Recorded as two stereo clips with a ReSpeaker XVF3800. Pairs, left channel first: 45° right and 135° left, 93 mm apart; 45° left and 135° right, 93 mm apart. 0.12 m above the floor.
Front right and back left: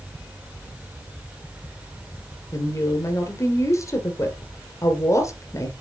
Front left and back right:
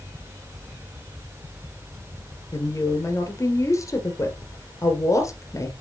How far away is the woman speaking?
About 2 m.